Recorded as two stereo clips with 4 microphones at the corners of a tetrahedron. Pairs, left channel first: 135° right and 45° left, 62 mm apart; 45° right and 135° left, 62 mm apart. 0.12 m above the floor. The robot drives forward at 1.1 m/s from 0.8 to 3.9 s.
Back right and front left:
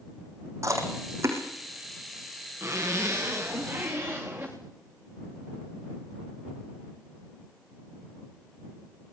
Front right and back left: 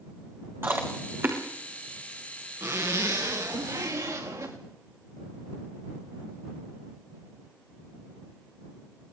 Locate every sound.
0.6 s chewing: 85° left, 6 m; by 1.4 s 90° left, 6 m
2.6 s a zipper: 100° left, 5.5 m; by 4.6 s 115° left, 6 m